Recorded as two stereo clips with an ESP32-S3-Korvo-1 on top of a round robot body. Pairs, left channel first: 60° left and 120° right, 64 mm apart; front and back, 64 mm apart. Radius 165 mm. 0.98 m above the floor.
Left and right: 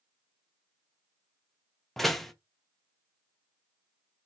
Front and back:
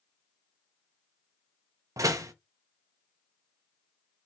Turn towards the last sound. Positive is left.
turn(degrees=145)